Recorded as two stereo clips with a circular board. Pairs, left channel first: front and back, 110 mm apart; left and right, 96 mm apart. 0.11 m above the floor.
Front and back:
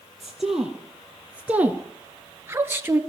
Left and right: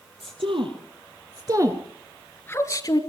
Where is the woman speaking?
90° right, 3 m; by 3.0 s 115° left, 1.8 m.